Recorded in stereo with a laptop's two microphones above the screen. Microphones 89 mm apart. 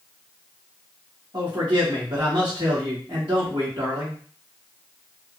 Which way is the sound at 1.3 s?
60° right (ahead or behind).